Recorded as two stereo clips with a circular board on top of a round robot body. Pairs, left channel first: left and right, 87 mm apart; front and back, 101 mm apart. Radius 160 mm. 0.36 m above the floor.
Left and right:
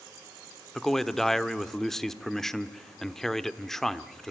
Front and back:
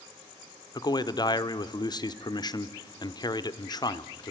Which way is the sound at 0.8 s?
5° left.